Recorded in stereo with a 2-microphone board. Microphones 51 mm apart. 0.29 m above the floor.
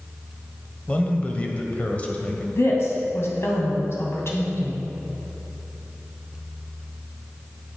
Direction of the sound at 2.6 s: 55° left (ahead or behind).